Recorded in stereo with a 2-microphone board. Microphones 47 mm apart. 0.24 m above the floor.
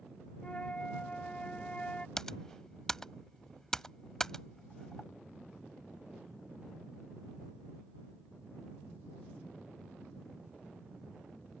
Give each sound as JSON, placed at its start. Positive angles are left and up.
{"t": 0.4, "sound": "a flute", "side_deg": 25}
{"t": 2.2, "sound": "typing on a keyboard", "side_deg": 10}